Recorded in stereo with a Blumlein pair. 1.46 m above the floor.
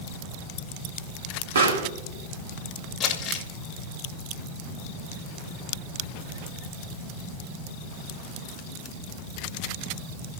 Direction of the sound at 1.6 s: 65° right.